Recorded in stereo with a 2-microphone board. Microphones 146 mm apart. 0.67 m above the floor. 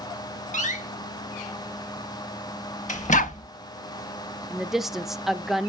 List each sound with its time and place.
0.5 s a door slam: 55° left (ahead or behind), 1.3 m
3.1 s a dog barking: 65° left (ahead or behind), 0.8 m
4.5 s a woman speaking: 5° right (ahead or behind), 0.6 m